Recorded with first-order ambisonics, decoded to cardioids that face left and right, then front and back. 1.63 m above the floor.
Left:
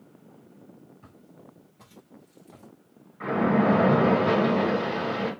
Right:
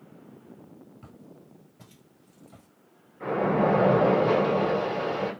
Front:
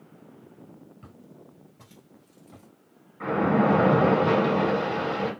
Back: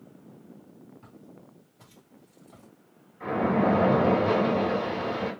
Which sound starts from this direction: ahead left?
A splash, at 3.2 s.